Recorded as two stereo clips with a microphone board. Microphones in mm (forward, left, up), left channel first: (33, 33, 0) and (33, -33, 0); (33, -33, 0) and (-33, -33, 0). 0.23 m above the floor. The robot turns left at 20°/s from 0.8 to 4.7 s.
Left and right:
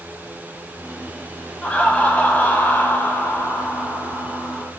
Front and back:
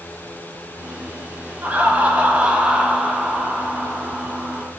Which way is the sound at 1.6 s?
140° left.